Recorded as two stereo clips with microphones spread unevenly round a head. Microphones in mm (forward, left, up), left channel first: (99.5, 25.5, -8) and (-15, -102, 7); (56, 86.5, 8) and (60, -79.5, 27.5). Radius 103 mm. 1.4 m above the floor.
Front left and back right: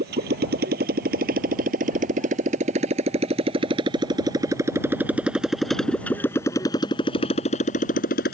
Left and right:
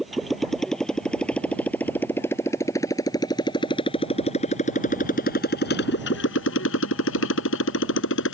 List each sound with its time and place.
0.0 s a motorcycle: straight behind; by 8.3 s 95° left